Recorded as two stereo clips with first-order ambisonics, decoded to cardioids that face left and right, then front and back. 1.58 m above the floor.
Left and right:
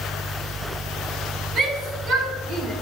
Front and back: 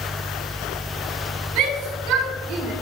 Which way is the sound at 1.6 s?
155° right.